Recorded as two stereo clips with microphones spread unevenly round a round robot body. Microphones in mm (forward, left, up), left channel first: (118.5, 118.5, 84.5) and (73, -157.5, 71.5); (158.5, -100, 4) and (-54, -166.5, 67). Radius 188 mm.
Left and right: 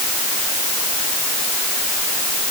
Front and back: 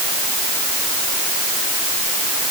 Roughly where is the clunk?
I don't hear a clunk.